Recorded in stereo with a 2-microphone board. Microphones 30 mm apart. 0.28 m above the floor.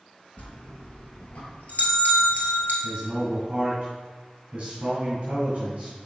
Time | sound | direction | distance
0.4 | a bell | 60° left (ahead or behind) | 1.7 m
2.8 | a man speaking | 30° right (ahead or behind) | 2.5 m